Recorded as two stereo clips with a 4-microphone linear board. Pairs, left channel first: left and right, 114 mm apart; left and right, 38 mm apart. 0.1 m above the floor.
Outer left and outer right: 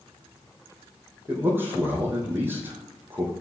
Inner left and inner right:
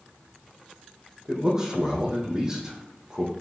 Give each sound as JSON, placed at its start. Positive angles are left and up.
{"t": 1.3, "sound": "a man speaking", "side_deg": -20, "distance_m": 4.0}